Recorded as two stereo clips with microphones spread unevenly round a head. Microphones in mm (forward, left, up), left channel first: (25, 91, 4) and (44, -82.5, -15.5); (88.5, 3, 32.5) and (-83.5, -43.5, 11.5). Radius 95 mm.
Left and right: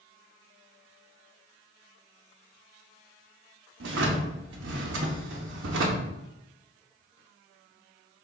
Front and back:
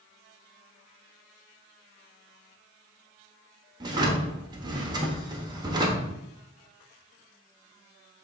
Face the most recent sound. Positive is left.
turn(degrees=-95)